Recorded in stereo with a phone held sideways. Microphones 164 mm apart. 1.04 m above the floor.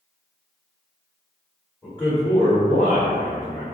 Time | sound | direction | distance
1.8 | a man speaking | 15° left (ahead or behind) | 1.2 m